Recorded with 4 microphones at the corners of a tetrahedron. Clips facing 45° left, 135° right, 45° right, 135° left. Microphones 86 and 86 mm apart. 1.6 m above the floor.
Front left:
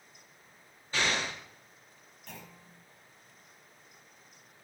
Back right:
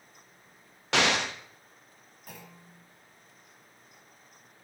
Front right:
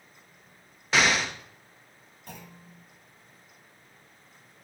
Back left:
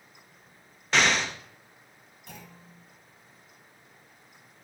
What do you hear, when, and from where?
0.9 s an explosion: 130° right, 0.6 m
2.3 s a clunk: 60° right, 2 m